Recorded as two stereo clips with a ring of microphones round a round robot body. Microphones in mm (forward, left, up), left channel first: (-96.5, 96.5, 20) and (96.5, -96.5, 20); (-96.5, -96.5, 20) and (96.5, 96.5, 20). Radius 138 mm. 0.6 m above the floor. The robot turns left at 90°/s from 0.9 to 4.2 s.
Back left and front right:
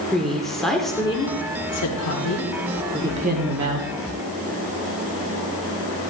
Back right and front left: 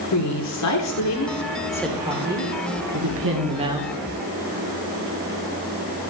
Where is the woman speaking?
135° right, 2 m; by 3.9 s 45° right, 2 m.